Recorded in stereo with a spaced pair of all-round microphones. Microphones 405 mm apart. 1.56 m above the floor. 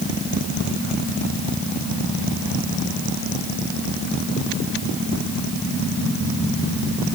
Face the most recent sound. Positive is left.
No sound to turn to.